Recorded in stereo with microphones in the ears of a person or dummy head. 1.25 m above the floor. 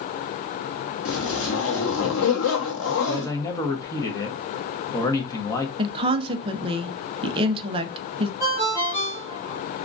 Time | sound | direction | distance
1.1 | a zipper | 60° left (ahead or behind) | 0.8 m
3.1 | a man speaking | 10° left (ahead or behind) | 0.8 m
5.8 | a woman speaking | 20° right (ahead or behind) | 0.5 m
8.4 | a ringtone | 15° left (ahead or behind) | 1.6 m